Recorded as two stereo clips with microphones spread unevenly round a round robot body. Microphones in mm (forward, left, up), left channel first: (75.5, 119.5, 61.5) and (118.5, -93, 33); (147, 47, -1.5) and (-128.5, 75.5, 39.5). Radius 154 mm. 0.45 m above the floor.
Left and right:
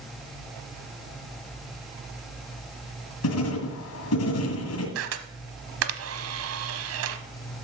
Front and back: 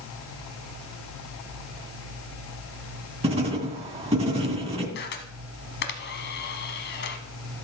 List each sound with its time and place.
3.2 s writing: 105° left, 2 m
5.0 s a camera shutter: 65° right, 0.9 m